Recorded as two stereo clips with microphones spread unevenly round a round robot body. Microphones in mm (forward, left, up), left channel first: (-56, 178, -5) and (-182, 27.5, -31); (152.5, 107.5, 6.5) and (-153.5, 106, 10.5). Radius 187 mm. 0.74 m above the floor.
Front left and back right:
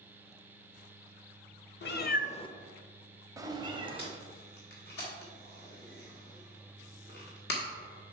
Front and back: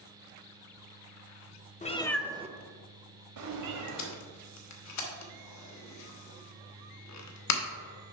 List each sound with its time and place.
1.8 s a cat meowing: 65° left, 0.9 m; by 4.1 s 165° left, 1.8 m
4.0 s tape being pulled: straight ahead, 1.2 m